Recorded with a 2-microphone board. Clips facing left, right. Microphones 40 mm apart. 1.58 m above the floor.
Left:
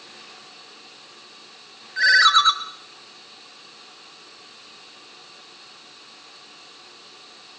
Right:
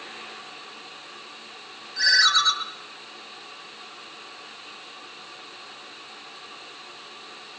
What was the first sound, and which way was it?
A ringtone, 40° left (ahead or behind).